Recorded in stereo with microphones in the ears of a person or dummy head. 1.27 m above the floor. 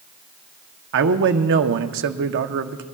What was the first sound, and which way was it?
A man speaking, 60° right (ahead or behind).